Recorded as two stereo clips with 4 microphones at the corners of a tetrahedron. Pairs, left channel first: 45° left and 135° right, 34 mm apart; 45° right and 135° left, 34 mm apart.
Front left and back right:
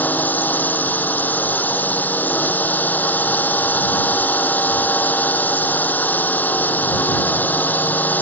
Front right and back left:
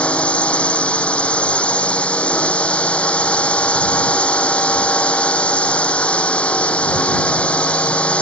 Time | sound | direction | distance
0.0 | a drone | 10° left | ?